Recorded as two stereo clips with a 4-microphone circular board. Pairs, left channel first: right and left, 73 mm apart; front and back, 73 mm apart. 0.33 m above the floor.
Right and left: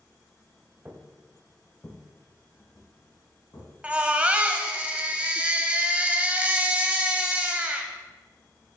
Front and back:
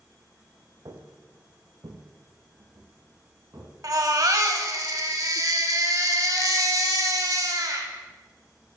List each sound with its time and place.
0.8 s footsteps: 160° left, 1.0 m; by 3.7 s 135° right, 2.5 m
3.8 s a baby crying: 160° left, 0.8 m